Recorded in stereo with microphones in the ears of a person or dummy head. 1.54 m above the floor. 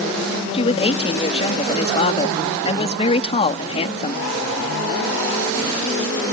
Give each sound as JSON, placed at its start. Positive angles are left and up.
{"t": 0.5, "sound": "a woman speaking", "side_deg": 35}